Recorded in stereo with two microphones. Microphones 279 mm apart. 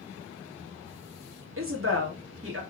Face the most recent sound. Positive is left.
turn(degrees=-50)  # may be behind; listen again after turning